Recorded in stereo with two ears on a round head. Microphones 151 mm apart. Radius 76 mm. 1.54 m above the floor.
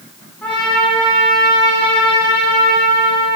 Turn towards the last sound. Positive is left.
turn(degrees=10)  # may be behind; listen again after turning